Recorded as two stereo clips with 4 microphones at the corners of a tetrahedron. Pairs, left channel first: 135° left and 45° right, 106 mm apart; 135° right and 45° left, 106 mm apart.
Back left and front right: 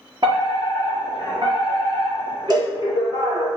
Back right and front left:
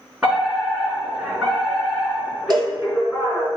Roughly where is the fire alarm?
Ahead right.